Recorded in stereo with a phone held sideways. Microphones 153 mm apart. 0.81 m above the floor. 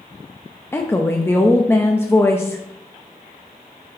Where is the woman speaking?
15° left (ahead or behind), 0.5 m.